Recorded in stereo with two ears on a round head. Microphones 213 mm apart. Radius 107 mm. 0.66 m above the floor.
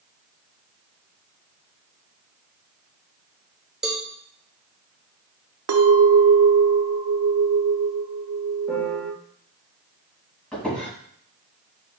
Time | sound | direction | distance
3.8 | a cowbell | 5° right (ahead or behind) | 1.2 m
5.7 | a clink | 65° right (ahead or behind) | 0.9 m
8.7 | a piano | 5° right (ahead or behind) | 2 m
10.5 | a squeak | 5° left (ahead or behind) | 3.5 m